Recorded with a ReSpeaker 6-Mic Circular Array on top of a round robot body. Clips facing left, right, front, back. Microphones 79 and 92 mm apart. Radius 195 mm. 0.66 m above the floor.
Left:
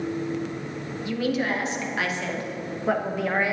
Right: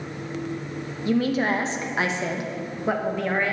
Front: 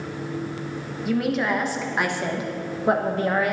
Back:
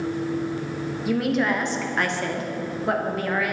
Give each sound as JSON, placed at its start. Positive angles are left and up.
{"t": 1.1, "sound": "a woman speaking", "azimuth_deg": -90, "distance_m": 1.4}